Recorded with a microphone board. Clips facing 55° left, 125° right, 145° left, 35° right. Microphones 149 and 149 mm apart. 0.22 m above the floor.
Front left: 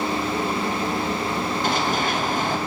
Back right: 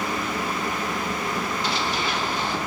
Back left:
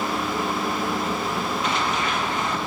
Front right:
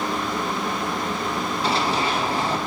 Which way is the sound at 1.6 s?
20° left.